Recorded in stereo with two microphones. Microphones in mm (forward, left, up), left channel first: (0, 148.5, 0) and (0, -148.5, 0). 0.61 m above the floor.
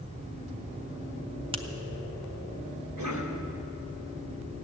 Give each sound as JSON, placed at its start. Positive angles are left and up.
{"t": 1.5, "sound": "a finger snap", "side_deg": -20, "distance_m": 0.8}
{"t": 3.0, "sound": "a cough", "side_deg": -70, "distance_m": 2.5}